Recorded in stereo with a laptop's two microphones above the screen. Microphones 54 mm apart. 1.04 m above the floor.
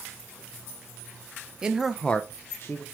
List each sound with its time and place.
1.6 s a man speaking: 15° right (ahead or behind), 0.6 m; by 2.8 s 50° left (ahead or behind), 0.9 m